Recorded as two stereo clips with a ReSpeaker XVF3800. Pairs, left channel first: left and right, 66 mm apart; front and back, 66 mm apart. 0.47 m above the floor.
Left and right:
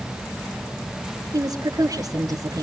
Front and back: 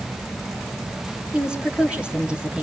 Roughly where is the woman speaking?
Right.